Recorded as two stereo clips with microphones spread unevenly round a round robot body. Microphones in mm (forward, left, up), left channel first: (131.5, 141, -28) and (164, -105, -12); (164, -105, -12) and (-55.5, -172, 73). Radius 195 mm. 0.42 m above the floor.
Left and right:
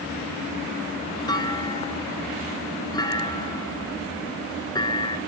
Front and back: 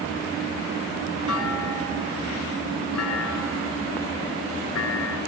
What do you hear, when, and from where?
1.3 s a clunk: 25° left, 3 m